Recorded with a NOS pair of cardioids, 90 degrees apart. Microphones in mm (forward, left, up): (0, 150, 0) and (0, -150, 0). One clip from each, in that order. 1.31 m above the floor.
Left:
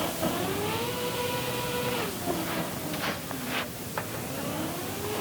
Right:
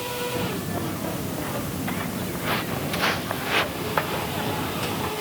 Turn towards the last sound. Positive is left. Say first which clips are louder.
# right 1 dB
turn(degrees=-60)